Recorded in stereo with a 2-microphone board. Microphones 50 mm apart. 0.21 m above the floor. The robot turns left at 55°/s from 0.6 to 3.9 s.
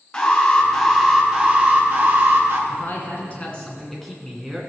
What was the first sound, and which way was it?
An alarm, 20° left.